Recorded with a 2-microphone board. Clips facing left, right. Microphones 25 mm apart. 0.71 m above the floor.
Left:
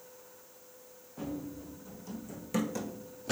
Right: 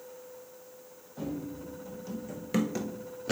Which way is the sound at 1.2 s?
20° right (ahead or behind).